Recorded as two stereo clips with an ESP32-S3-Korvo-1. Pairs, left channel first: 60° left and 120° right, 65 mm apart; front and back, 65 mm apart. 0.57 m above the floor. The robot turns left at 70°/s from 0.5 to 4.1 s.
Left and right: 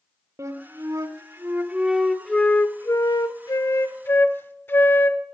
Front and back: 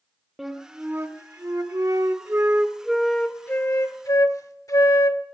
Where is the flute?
95° right, 0.8 m; by 5.2 s 10° left, 0.8 m.